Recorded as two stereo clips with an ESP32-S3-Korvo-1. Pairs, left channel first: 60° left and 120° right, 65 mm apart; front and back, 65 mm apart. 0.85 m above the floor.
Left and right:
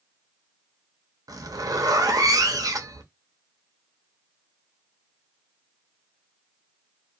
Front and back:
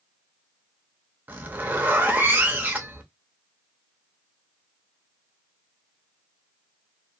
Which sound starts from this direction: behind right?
A zipper, at 1.3 s.